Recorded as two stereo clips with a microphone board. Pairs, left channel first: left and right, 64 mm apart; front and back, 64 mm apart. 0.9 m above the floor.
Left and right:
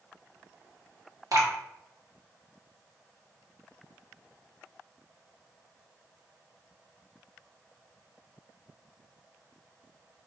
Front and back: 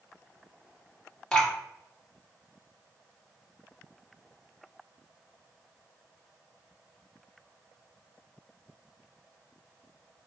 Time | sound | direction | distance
1.3 | dripping | 75° right | 1.6 m